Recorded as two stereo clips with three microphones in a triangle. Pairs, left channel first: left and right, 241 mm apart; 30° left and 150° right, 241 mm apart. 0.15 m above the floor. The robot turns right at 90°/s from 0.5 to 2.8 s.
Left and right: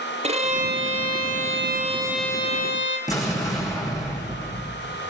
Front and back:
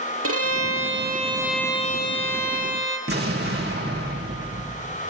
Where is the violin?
155° right, 2.5 m; by 3.0 s 55° left, 2.5 m.